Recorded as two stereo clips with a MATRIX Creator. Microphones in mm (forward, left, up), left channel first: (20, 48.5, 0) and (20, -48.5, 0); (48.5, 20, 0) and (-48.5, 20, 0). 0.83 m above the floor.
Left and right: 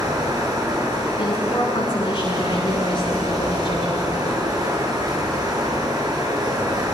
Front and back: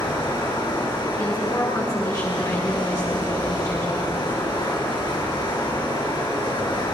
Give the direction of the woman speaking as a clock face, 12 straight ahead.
10 o'clock.